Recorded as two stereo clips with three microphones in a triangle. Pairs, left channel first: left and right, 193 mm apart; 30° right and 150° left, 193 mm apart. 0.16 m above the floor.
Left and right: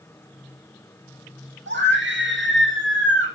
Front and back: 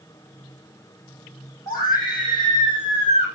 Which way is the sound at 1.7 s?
105° right.